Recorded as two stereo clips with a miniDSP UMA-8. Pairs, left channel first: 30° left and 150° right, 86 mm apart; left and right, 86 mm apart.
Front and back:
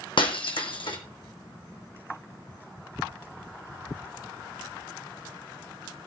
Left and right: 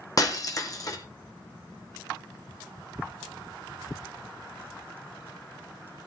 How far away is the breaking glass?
About 2.5 m.